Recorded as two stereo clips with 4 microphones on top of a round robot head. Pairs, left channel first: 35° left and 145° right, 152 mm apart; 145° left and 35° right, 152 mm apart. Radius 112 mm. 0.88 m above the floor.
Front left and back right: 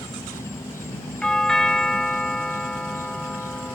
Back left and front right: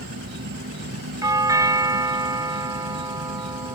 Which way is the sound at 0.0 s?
40° right.